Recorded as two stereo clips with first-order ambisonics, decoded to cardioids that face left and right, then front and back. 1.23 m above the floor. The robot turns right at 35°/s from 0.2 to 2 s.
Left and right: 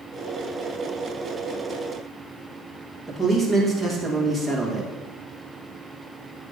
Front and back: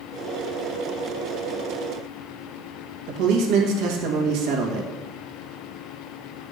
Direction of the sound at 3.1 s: 175° left.